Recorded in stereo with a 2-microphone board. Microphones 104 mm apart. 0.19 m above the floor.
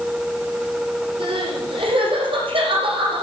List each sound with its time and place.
1.2 s crying: 60° right (ahead or behind), 10 m